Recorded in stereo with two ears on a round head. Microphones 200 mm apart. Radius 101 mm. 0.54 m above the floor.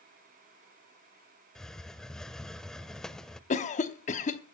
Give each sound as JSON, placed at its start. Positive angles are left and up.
{"t": 1.6, "sound": "a hiss", "side_deg": 5, "distance_m": 0.6}
{"t": 3.5, "sound": "a cough", "side_deg": 35, "distance_m": 0.9}